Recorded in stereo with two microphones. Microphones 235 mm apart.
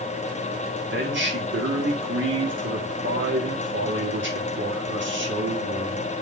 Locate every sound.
0.9 s a man speaking: 55° right (ahead or behind), 1.3 m